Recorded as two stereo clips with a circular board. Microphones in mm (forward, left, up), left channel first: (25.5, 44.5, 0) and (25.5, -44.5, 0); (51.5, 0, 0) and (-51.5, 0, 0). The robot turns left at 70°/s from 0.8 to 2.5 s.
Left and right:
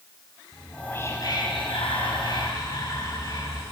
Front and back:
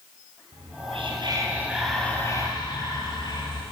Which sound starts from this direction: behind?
Whispering, at 0.5 s.